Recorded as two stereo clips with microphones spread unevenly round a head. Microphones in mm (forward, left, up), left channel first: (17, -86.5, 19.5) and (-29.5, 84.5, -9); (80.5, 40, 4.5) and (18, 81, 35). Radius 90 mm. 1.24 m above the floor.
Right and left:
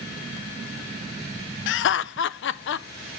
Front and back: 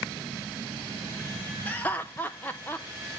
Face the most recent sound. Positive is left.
turn(degrees=-100)